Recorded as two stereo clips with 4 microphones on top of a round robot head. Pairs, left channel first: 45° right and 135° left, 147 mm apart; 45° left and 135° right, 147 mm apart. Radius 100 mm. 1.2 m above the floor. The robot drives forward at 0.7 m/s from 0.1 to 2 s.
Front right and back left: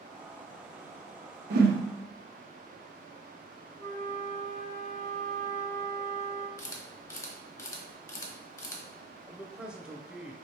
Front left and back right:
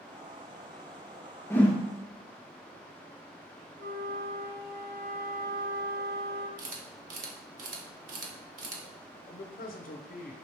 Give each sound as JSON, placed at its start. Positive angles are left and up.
{"t": 1.5, "sound": "a whoosh", "azimuth_deg": 120, "distance_m": 0.7}
{"t": 3.8, "sound": "a flute", "azimuth_deg": -110, "distance_m": 0.9}
{"t": 6.6, "sound": "a camera shutter", "azimuth_deg": -115, "distance_m": 1.0}
{"t": 9.3, "sound": "a man speaking", "azimuth_deg": 50, "distance_m": 0.6}